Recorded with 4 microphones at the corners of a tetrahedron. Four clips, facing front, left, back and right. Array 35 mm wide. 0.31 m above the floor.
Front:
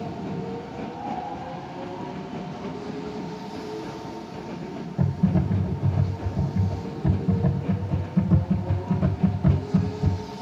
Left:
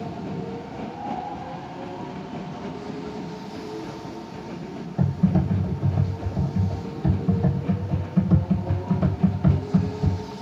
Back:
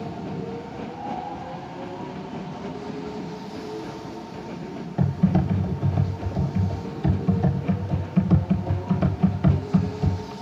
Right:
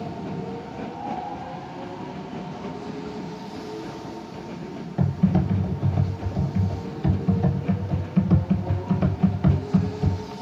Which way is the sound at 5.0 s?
145° right.